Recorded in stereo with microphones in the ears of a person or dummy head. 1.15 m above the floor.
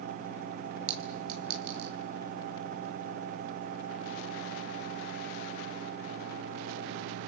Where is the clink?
50° right (ahead or behind), 2 m.